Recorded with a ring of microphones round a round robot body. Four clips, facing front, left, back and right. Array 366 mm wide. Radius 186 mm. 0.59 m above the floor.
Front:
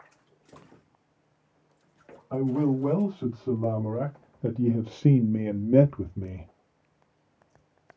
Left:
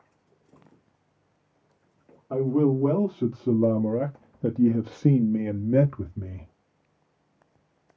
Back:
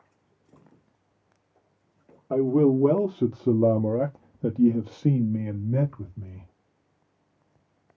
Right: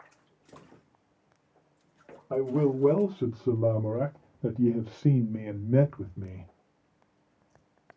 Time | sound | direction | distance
2.3 | a man speaking | 175° right | 1.5 m